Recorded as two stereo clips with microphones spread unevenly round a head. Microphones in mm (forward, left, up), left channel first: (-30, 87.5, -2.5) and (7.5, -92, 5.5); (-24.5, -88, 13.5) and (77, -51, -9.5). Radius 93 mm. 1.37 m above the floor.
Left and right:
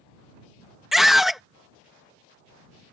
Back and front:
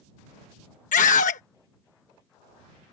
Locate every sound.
0.9 s a scream: 165° right